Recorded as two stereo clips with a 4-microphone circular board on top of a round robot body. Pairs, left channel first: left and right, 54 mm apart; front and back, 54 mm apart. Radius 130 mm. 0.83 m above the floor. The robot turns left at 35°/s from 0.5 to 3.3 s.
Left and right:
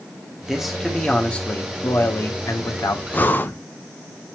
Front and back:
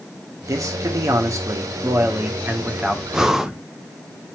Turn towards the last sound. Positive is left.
turn(degrees=105)